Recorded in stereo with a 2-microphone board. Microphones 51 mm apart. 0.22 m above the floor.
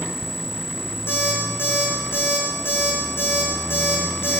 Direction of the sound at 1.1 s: 50° left (ahead or behind).